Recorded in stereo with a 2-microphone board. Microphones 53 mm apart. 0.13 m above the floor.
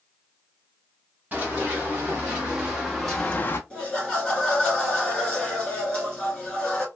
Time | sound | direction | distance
1.3 | running footsteps | 30° right (ahead or behind) | 2.5 m
3.7 | laughter | 10° left (ahead or behind) | 2 m